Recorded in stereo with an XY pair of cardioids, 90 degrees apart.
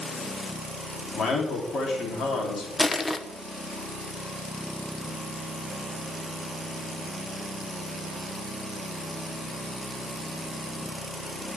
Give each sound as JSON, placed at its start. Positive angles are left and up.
{"t": 1.1, "sound": "a man speaking", "azimuth_deg": 65, "distance_m": 3.5}
{"t": 2.8, "sound": "crushing", "azimuth_deg": 25, "distance_m": 1.0}